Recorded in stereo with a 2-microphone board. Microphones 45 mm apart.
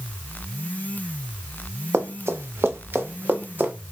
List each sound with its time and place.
1.9 s running footsteps: 80° right, 1.2 m; by 3.7 s 40° right (ahead or behind), 1.6 m